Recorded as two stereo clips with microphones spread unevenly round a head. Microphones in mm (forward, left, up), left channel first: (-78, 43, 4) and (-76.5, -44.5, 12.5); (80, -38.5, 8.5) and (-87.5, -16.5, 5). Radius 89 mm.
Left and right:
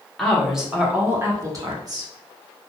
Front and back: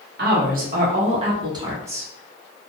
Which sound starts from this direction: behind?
A woman speaking, at 0.2 s.